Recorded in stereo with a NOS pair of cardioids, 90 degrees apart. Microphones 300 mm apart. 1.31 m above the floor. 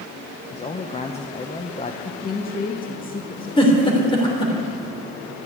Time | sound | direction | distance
0.5 | a man speaking | 20° left | 1.0 m
2.0 | a woman speaking | 30° left | 1.8 m
3.6 | a giggle | 15° left | 3 m